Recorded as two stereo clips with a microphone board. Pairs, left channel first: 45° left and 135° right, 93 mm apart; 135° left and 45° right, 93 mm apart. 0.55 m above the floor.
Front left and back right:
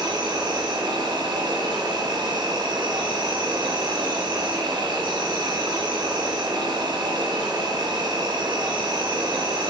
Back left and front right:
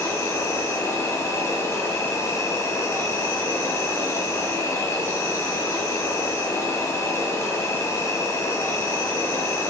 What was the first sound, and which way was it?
An insect, 170° right.